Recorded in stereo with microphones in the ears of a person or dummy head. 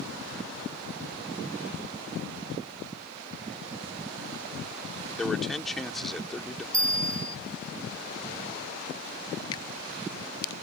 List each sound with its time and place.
5.2 s a man speaking: 5° left (ahead or behind)
6.7 s a bell: 20° right (ahead or behind)
9.5 s a finger snap: 30° left (ahead or behind)